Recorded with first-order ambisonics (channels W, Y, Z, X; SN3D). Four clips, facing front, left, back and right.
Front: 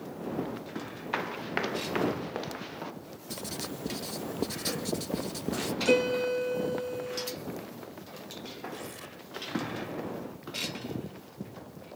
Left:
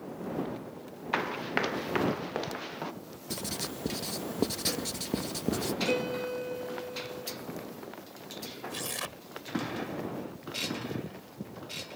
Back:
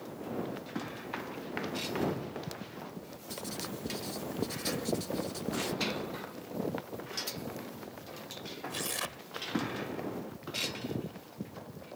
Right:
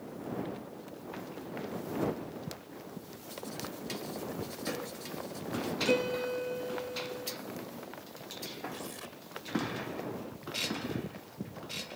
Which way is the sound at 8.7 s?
135° left.